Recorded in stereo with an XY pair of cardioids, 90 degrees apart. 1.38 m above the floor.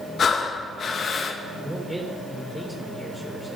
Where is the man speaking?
10° right, 4.5 m.